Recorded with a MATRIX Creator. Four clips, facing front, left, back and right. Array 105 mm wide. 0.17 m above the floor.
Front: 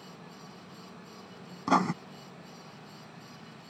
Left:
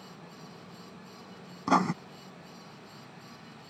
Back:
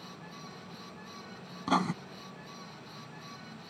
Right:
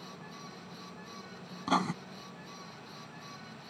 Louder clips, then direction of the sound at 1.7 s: Left 5 dB, front 3 dB; 55° left.